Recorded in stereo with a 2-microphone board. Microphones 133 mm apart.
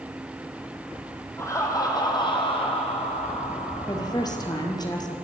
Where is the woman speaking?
30° left (ahead or behind), 3 m.